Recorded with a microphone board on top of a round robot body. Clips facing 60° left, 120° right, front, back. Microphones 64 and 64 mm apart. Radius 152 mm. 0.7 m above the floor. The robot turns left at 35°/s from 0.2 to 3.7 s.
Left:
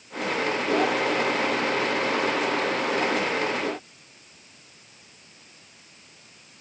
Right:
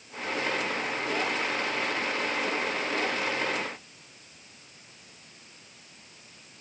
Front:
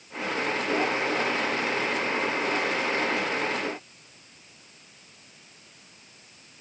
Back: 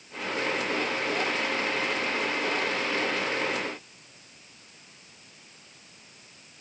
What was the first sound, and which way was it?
Only background noise.